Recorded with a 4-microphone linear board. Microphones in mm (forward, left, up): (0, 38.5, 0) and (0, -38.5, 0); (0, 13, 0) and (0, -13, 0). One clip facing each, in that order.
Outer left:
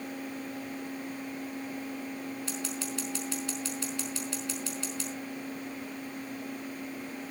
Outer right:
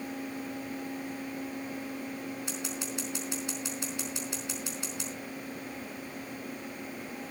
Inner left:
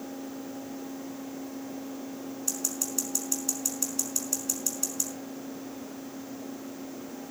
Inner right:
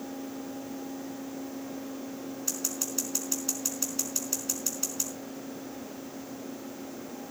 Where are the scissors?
20° right (ahead or behind), 4.5 m.